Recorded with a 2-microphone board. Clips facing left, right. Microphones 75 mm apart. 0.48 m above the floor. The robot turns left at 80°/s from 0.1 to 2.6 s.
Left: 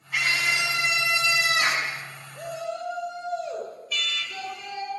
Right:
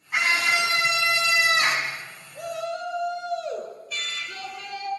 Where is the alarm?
35° right (ahead or behind), 1.7 m.